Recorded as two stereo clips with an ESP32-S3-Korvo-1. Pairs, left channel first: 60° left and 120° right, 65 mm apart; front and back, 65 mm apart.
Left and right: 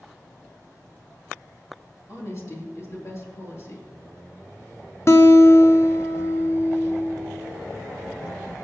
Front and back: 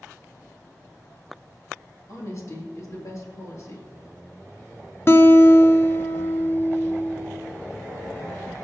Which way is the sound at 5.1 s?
35° left.